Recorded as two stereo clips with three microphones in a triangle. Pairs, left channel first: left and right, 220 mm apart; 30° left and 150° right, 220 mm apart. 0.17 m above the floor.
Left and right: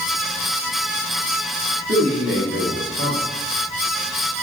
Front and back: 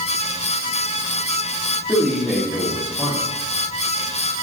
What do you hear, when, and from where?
1.9 s a man speaking: 60° right, 6.5 m